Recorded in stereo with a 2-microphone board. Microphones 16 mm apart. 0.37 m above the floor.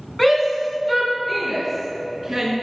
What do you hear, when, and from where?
0.2 s a shout: 20° left (ahead or behind), 4 m; by 2.5 s 10° right (ahead or behind), 5.5 m